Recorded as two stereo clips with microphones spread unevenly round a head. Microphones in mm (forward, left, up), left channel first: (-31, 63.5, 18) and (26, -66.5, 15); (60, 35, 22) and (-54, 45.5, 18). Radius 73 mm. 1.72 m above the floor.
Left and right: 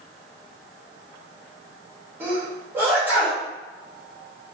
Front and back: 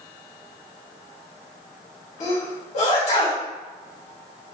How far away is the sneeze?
About 1.7 m.